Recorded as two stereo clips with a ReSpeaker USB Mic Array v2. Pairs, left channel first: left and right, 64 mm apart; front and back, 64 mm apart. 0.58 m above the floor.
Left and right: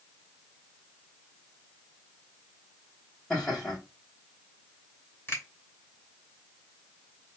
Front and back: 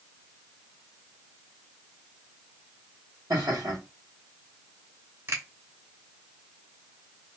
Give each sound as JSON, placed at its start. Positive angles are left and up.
{"t": 3.3, "sound": "laughter", "azimuth_deg": 180, "distance_m": 2.5}
{"t": 5.3, "sound": "a finger snap", "azimuth_deg": 145, "distance_m": 2.5}